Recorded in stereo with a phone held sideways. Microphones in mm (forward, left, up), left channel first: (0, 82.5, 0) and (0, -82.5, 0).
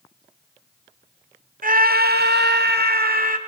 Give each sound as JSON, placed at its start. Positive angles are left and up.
{"t": 1.6, "sound": "a scream", "side_deg": -55, "distance_m": 2.0}